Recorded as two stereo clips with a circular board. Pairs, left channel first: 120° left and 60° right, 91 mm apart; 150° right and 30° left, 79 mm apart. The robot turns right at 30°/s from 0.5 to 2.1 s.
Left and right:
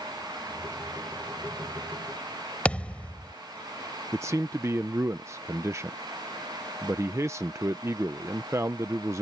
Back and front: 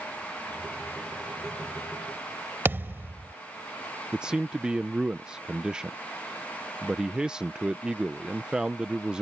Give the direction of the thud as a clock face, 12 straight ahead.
10 o'clock.